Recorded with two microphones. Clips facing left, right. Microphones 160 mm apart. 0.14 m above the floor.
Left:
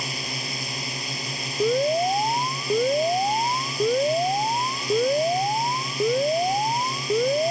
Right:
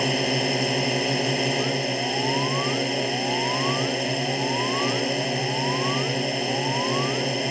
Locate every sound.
0.0 s a drone: 65° right (ahead or behind)
1.6 s an alarm: 50° left (ahead or behind)